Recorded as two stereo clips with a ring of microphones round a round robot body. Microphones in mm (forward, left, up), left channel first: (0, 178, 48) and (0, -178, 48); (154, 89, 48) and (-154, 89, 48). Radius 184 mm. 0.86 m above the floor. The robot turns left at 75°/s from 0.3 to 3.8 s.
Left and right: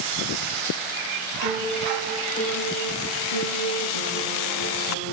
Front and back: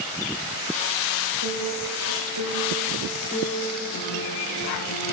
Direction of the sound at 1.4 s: 135° right.